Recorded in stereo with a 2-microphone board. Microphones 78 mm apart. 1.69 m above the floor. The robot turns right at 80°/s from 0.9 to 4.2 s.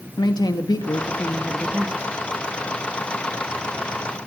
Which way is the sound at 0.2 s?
120° left.